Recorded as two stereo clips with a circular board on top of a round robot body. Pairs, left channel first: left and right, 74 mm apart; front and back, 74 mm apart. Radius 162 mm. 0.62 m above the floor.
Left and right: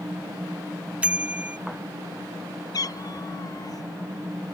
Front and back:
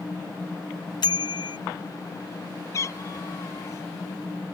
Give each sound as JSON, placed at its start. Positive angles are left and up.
{"t": 1.0, "sound": "a bicycle bell", "azimuth_deg": -15}
{"t": 2.7, "sound": "a cat meowing", "azimuth_deg": 50}